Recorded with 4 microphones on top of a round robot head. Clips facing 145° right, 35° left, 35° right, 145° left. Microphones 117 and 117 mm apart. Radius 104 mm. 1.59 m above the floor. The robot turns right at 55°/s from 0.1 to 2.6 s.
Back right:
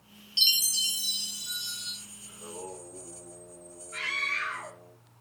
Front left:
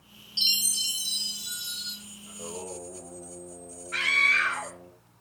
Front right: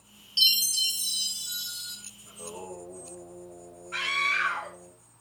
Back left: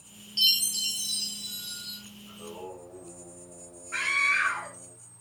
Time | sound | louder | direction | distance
0.4 | a chime | even, front right 1 dB | 105° right | 4 m
2.3 | singing | front left 3 dB, front right 1 dB | 15° left | 9 m
3.9 | a scream | front left 7 dB, even | 35° left | 3 m